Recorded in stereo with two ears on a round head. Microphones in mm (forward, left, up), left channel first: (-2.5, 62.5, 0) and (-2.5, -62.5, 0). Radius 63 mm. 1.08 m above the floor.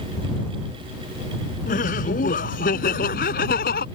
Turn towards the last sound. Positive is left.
turn(degrees=65)  # may be behind; listen again after turning